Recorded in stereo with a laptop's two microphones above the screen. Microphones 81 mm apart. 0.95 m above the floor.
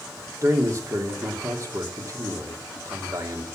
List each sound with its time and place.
0.4 s a man speaking: 45° right (ahead or behind), 2.5 m